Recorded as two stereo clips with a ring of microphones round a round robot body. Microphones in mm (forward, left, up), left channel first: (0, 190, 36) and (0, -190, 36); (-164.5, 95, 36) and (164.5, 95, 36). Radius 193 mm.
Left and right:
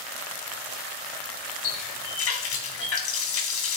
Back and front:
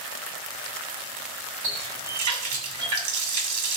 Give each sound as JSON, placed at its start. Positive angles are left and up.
{"t": 1.6, "sound": "a running tap", "azimuth_deg": 35, "distance_m": 3.0}